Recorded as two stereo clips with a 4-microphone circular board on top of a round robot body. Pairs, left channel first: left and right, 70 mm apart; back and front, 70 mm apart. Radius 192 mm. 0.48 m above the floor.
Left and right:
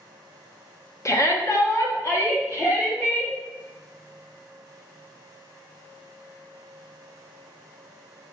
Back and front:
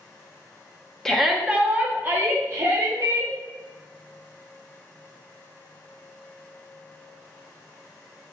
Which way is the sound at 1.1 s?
100° left.